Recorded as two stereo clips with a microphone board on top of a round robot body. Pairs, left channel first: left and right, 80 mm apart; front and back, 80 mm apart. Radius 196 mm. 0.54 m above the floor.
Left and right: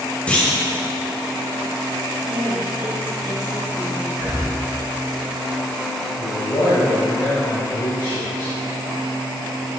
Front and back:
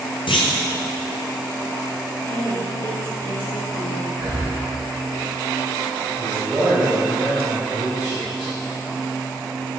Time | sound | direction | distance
0.3 | a clunk | 15° left | 1.2 m
2.2 | a woman speaking | 20° right | 2 m
4.1 | breathing | 150° right | 3 m
6.2 | a man speaking | 115° left | 3 m